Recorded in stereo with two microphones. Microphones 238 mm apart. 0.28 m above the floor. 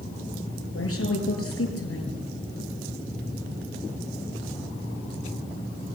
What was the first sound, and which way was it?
A woman speaking, 75° left (ahead or behind).